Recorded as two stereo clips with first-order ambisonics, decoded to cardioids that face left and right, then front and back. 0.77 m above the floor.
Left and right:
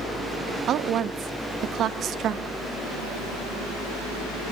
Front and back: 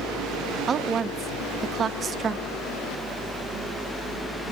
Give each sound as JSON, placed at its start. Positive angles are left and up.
{"t": 0.7, "sound": "a woman speaking", "azimuth_deg": -125, "distance_m": 0.5}